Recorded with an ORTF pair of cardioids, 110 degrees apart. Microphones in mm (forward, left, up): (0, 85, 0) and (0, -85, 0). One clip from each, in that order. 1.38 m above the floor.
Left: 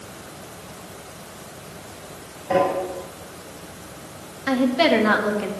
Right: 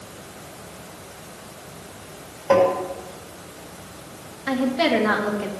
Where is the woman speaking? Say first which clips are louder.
Left 3 dB; 10° left, 2.0 m.